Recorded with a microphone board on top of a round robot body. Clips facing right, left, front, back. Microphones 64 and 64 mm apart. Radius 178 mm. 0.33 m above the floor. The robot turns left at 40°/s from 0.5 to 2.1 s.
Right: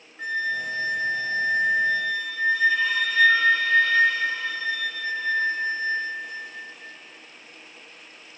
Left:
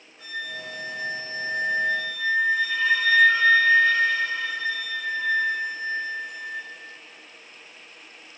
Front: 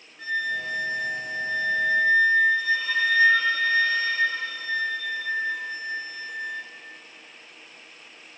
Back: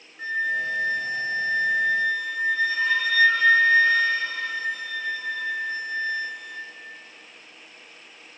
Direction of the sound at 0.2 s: 120° right.